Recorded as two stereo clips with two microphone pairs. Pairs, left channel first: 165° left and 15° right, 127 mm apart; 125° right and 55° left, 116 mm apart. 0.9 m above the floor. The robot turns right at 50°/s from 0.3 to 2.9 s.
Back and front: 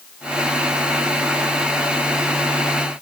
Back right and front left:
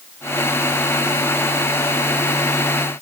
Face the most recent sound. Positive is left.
No sound to turn to.